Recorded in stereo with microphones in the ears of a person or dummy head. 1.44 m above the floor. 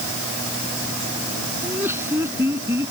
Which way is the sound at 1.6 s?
10° right (ahead or behind).